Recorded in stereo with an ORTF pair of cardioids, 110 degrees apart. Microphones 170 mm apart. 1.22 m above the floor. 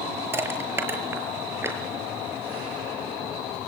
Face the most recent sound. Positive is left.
turn(degrees=-15)